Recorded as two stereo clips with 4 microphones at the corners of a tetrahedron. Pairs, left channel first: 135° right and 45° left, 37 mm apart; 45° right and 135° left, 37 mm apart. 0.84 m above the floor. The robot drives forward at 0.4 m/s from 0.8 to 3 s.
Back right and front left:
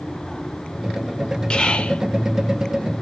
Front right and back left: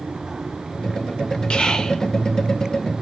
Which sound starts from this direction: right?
Whispering, at 1.5 s.